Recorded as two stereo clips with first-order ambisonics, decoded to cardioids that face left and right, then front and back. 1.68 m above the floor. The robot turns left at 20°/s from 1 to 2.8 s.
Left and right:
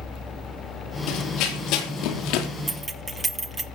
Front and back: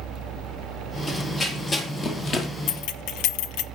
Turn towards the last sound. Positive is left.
turn(degrees=-15)